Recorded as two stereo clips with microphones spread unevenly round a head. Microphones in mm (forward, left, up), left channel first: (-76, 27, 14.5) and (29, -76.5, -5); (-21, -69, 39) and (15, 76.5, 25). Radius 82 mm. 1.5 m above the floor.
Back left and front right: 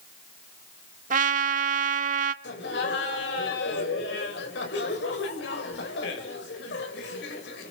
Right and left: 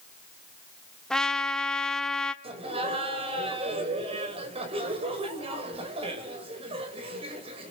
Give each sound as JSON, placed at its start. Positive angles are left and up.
{"t": 1.1, "sound": "a trumpet", "azimuth_deg": -25, "distance_m": 1.3}
{"t": 2.4, "sound": "laughter", "azimuth_deg": 130, "distance_m": 7.0}